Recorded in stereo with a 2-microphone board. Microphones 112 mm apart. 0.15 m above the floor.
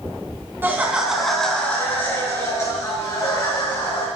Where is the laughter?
20° right (ahead or behind), 1.5 m; by 4.1 s 35° left (ahead or behind), 4 m.